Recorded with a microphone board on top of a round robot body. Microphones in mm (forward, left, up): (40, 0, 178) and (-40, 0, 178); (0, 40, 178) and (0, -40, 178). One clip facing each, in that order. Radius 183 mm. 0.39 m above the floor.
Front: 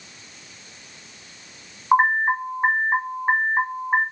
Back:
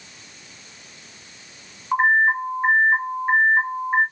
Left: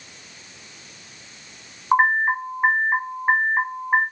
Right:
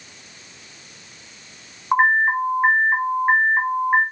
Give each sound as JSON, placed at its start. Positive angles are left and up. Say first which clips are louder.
{"t": 1.9, "sound": "an alarm", "louder": "even, right 1 dB", "azimuth_deg": 10, "distance_m": 1.3}